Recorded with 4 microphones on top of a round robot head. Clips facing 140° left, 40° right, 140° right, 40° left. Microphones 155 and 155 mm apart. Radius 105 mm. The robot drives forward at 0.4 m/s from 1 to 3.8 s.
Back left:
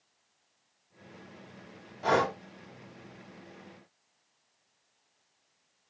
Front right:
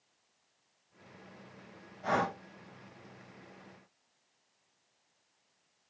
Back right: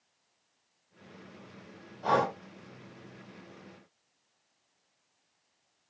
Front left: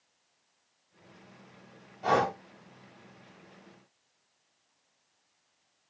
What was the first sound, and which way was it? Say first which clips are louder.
Breathing: back left 5 dB, front left 1 dB; 125° left.